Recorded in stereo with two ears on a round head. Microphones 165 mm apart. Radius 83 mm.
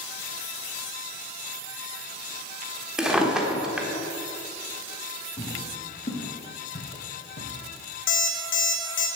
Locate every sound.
3.0 s a drawer: 5° right (ahead or behind), 1.2 m
5.4 s footsteps: 25° left (ahead or behind), 4 m; by 7.5 s 55° left (ahead or behind), 3.5 m
8.1 s an alarm clock: 75° left (ahead or behind), 2 m